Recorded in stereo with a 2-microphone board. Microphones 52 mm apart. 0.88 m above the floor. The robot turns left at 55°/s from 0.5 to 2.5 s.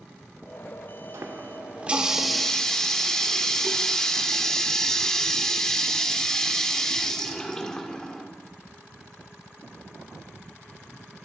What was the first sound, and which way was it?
A running tap, 120° right.